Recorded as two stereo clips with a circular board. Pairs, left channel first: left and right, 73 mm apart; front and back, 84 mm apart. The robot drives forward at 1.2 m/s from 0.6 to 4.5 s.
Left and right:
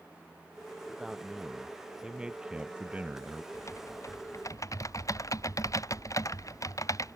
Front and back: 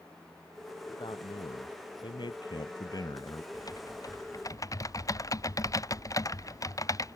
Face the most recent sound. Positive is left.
turn(degrees=50)